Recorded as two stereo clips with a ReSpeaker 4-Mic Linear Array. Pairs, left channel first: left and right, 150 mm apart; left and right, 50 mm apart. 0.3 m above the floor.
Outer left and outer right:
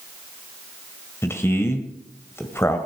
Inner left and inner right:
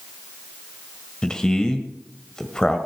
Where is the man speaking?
15° left (ahead or behind), 1.5 m.